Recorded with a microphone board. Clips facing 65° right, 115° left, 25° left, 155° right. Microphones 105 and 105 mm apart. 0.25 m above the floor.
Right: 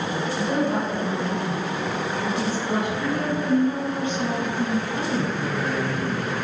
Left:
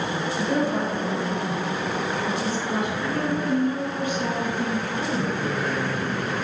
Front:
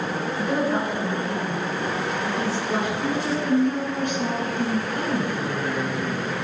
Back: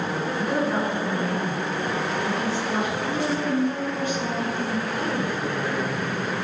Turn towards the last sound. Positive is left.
turn(degrees=-5)